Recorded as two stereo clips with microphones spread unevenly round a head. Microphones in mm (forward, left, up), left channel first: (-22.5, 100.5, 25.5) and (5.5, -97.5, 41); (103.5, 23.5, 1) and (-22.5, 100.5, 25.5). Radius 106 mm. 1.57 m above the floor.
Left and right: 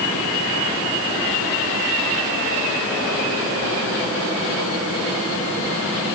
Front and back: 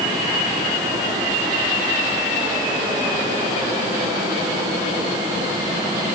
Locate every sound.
Only background noise.